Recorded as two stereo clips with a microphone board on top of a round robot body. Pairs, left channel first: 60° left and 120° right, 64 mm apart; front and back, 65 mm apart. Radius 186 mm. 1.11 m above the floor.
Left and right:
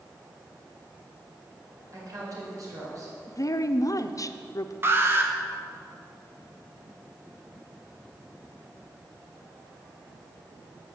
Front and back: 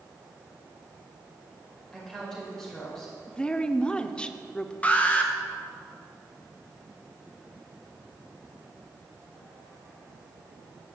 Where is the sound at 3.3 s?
75° left, 0.9 m.